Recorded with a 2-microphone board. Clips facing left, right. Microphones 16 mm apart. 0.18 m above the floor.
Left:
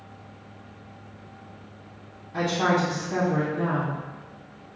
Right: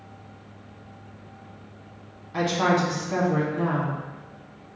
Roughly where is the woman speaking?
Right.